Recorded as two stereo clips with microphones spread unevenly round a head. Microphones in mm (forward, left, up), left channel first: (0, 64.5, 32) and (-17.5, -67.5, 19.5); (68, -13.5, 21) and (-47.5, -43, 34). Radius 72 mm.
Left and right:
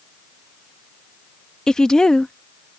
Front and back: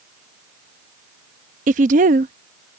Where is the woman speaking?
170° left.